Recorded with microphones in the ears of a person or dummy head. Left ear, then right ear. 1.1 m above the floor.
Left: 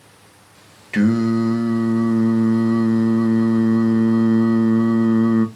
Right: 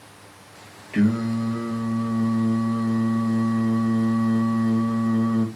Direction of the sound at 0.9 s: 65° left (ahead or behind).